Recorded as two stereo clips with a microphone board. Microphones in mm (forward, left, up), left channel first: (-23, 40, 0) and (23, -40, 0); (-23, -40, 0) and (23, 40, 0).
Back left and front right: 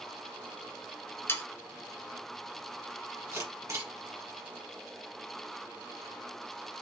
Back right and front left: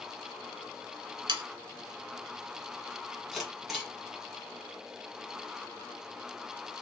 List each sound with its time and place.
1.3 s sawing: 60° left, 0.8 m
3.3 s a camera shutter: 25° right, 1.5 m